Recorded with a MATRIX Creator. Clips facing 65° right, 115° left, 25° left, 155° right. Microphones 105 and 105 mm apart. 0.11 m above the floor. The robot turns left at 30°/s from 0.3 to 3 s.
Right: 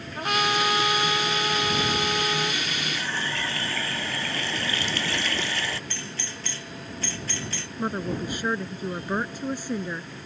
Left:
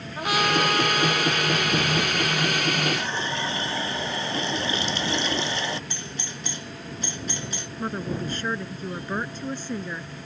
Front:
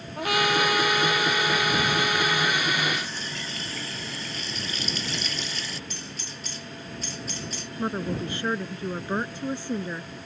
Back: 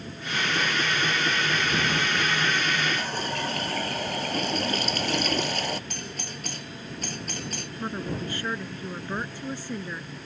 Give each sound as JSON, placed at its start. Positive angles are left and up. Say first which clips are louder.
{"t": 0.2, "sound": "a trumpet", "louder": "left 2 dB, front 6 dB", "azimuth_deg": 25}
{"t": 2.9, "sound": "a running tap", "louder": "left 2 dB, back 5 dB", "azimuth_deg": 180}
{"t": 5.9, "sound": "a doorbell", "louder": "left 1 dB, back 3 dB", "azimuth_deg": 180}
{"t": 7.8, "sound": "a woman speaking", "louder": "right 1 dB, front 4 dB", "azimuth_deg": -5}